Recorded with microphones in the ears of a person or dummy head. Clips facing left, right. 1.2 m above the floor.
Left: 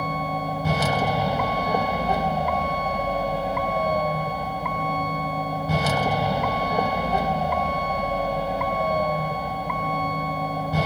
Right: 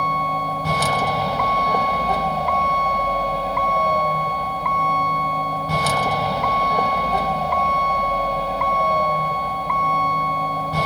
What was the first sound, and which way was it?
A vehicle, 5° left (ahead or behind).